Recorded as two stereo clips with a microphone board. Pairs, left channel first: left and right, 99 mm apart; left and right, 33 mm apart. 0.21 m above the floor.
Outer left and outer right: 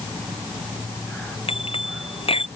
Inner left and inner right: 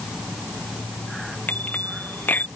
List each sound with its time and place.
1.5 s a bicycle bell: 80° left